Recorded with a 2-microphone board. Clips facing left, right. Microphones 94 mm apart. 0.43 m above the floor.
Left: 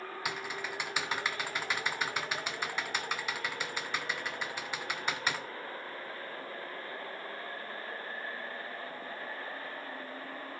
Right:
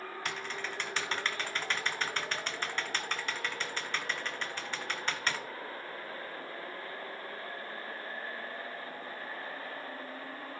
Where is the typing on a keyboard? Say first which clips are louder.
Left 1 dB; 10° left (ahead or behind), 0.9 m.